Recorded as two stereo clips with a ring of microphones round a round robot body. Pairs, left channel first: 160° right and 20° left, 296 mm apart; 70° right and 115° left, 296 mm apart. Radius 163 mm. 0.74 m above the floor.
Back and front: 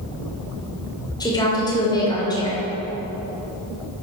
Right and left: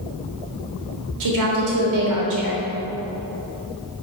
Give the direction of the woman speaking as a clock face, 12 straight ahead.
8 o'clock.